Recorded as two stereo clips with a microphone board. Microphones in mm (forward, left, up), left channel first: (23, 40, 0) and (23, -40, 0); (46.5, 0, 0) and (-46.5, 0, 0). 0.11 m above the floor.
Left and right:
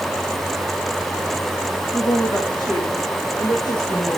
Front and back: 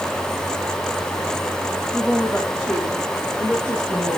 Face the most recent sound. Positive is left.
turn(degrees=80)